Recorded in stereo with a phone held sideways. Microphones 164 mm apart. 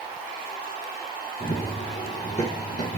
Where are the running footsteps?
35° left (ahead or behind), 2.5 m; by 3.0 s 55° left (ahead or behind), 2.5 m.